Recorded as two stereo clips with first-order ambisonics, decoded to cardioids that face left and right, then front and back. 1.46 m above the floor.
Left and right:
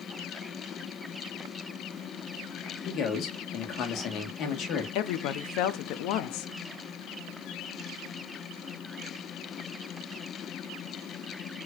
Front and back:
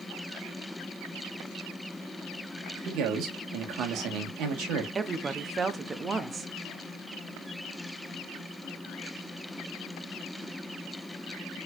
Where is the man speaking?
135° left, 1.7 m.